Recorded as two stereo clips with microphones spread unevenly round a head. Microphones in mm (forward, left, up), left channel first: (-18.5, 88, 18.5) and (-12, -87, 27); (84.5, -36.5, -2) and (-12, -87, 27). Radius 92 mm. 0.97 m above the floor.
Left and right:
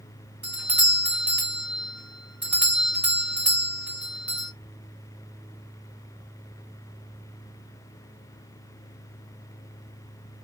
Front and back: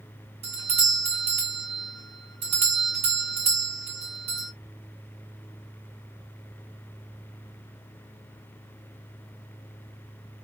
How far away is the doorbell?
About 1.2 m.